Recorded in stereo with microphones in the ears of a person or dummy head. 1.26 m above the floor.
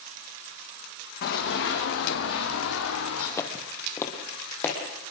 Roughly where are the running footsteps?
Left.